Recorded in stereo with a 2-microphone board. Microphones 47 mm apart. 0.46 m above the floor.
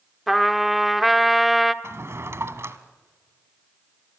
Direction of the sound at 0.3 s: Centre (ahead or behind).